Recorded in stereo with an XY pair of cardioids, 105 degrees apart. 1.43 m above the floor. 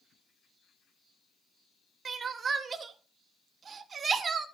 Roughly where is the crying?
Ahead right.